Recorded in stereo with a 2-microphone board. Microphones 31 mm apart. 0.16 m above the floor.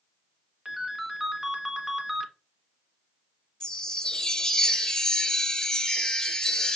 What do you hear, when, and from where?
0.7 s a ringtone: 15° right (ahead or behind), 1.1 m
3.6 s a chime: 20° left (ahead or behind), 1.4 m